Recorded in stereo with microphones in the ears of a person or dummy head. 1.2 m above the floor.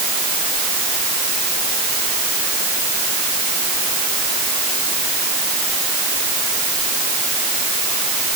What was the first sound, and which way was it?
Only background noise.